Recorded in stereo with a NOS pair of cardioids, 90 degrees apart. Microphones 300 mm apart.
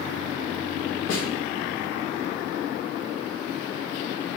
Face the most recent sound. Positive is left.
turn(degrees=55)